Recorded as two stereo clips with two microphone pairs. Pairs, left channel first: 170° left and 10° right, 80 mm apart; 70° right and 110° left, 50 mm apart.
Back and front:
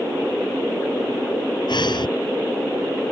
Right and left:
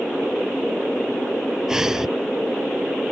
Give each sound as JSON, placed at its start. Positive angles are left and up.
{"t": 1.7, "sound": "breathing", "azimuth_deg": -170}